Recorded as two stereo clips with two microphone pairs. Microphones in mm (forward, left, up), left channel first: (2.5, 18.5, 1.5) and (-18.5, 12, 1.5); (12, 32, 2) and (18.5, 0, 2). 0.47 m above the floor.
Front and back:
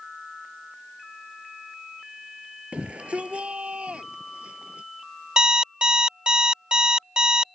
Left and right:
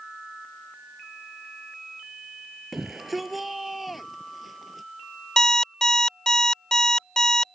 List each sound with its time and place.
2.7 s a shout: 165° right; by 4.9 s 170° right
5.4 s an alarm clock: 165° left